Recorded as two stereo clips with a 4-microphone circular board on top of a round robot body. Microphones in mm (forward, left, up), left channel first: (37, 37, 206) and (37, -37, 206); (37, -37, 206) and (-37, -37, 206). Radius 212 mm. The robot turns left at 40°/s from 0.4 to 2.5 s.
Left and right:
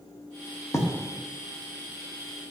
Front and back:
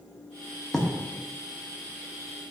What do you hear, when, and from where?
0.7 s writing: 80° left, 1.6 m; by 0.8 s 75° left, 1.6 m